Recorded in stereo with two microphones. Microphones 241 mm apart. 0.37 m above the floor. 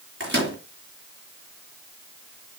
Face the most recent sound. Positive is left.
turn(degrees=-50)  # may be behind; listen again after turning